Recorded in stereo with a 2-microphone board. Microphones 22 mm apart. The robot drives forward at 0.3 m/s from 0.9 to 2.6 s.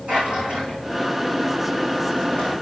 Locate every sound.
0.1 s a drawer: 65° right (ahead or behind), 7.5 m; by 2.5 s 60° right (ahead or behind), 7.5 m